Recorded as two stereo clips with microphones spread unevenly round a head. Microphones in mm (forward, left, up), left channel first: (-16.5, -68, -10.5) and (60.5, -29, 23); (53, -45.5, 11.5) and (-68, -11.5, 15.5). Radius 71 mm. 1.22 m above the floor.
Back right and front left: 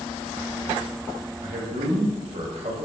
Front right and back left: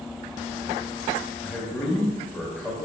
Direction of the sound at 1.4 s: 65° left.